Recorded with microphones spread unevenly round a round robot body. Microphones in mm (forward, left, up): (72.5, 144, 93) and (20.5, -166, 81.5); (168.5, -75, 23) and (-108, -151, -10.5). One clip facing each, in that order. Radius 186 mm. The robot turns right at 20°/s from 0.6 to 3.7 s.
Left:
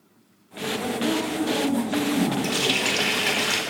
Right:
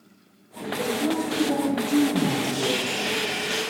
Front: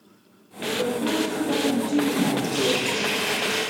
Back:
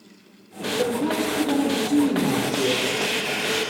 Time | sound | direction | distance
0.8 | a woman speaking | 130° right | 5 m
2.4 | a running tap | 75° left | 1.3 m